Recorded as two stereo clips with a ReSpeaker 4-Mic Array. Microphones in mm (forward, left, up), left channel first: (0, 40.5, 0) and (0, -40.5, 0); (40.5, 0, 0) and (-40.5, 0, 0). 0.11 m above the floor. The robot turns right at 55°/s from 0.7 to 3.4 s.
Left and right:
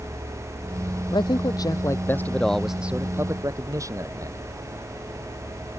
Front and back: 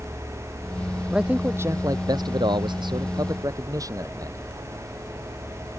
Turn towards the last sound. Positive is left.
turn(degrees=-135)